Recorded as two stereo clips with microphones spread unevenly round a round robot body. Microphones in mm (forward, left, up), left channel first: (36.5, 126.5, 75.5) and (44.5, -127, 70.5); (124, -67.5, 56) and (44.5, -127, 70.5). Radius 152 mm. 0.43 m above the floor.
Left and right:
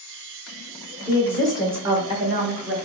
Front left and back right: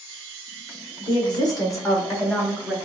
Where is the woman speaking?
20° left, 1.4 m; by 2.8 s 45° right, 1.7 m.